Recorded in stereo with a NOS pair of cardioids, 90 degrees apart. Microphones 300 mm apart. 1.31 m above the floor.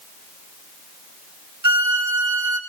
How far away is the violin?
About 2.5 m.